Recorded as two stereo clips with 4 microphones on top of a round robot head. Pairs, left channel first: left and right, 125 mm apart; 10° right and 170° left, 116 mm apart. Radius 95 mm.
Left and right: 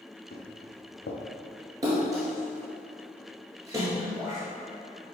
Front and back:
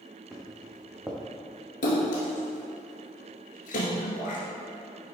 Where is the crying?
I don't hear crying.